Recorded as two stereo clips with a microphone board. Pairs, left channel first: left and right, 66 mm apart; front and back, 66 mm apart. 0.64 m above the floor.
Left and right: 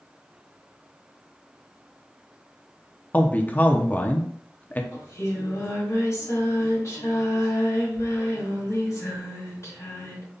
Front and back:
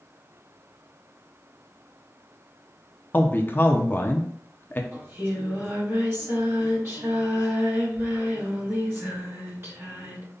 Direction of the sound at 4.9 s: 130° left.